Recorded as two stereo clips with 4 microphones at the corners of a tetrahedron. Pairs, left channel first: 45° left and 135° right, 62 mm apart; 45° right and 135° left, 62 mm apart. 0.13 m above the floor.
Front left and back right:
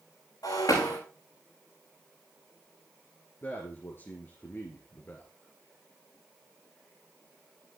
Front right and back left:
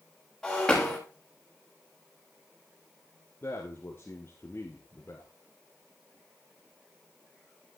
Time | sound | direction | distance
0.4 | breaking glass | 35° left | 6.5 m
3.4 | a man speaking | straight ahead | 2 m